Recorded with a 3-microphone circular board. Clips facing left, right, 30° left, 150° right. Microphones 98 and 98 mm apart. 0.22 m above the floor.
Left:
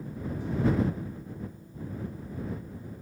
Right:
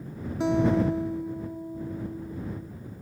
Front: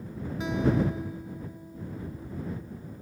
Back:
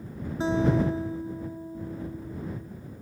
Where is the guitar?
90° right.